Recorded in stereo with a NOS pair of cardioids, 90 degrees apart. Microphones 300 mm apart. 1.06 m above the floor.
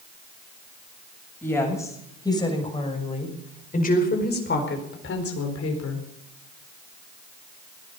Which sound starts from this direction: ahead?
A woman speaking, at 1.4 s.